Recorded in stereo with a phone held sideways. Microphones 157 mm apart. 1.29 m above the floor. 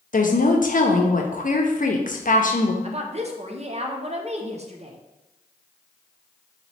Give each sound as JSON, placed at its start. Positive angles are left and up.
{"t": 0.1, "sound": "a woman speaking", "side_deg": 55, "distance_m": 0.6}
{"t": 2.8, "sound": "a woman speaking", "side_deg": -45, "distance_m": 0.6}